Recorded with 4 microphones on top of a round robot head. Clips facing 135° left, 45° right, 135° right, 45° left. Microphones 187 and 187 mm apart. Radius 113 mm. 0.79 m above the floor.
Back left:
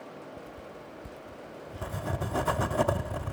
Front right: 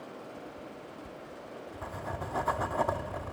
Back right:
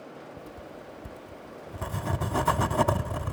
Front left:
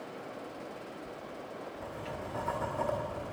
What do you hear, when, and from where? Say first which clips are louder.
0.4 s writing: even, even; 160° right, 0.7 m